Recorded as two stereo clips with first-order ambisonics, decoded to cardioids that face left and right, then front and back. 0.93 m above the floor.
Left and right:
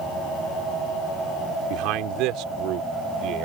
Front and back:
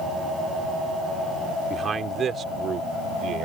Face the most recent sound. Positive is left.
turn(degrees=-130)